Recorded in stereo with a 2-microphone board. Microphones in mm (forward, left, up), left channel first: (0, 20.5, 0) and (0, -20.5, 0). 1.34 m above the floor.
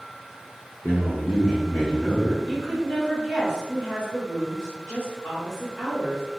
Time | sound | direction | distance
0.8 | a man speaking | 50° left (ahead or behind) | 0.7 m
2.4 | a woman speaking | 30° left (ahead or behind) | 1.4 m